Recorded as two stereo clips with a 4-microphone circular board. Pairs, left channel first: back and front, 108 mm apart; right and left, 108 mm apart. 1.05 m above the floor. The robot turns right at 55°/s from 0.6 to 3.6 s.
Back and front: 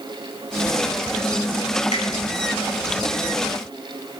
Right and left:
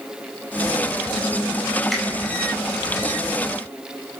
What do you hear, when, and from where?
1.9 s a finger snap: straight behind, 4 m; by 2.0 s 175° right, 4 m